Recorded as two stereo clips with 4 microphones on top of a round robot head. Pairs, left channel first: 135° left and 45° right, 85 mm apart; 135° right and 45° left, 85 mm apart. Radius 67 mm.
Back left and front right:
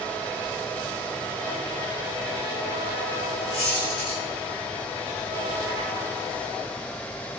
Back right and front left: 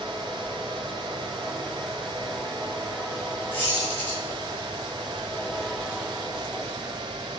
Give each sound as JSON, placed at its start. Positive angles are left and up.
{"t": 3.5, "sound": "a squeak", "azimuth_deg": 155, "distance_m": 1.9}